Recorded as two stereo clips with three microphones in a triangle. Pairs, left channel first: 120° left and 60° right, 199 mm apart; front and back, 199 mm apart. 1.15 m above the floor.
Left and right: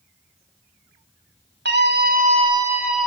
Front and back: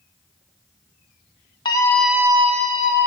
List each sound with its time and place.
1.6 s a scream: 65° right, 1.5 m; by 3.1 s 150° right, 1.9 m